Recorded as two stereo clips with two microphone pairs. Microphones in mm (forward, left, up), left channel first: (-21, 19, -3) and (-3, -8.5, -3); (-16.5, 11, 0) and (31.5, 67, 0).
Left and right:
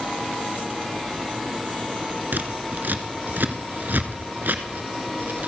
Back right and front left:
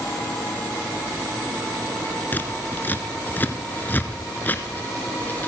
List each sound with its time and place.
2.3 s scissors: 70° right, 1.1 m